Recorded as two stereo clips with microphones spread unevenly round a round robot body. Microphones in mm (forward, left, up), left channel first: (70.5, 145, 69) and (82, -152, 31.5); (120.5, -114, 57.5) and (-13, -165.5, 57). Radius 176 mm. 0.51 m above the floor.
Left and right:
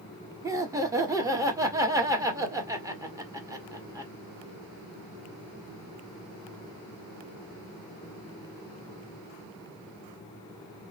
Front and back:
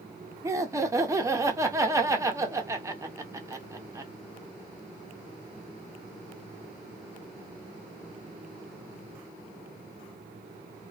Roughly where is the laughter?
Behind right.